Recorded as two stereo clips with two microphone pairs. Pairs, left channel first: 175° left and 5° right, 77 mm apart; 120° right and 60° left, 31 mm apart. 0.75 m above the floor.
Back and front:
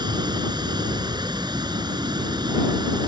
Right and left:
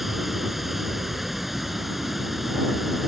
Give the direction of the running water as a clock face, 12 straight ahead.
1 o'clock.